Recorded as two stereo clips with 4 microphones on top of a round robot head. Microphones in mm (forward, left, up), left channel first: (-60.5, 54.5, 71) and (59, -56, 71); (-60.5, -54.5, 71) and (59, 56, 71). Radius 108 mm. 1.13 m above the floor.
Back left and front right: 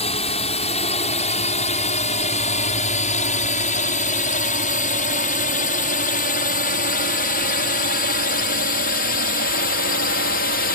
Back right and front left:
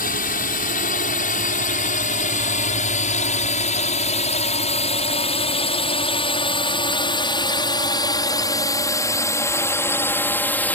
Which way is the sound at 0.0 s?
170° right.